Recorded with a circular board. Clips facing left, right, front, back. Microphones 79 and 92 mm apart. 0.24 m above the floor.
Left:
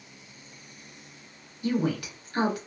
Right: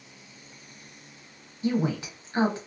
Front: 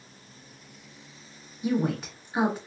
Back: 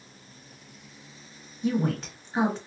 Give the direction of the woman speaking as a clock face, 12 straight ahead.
2 o'clock.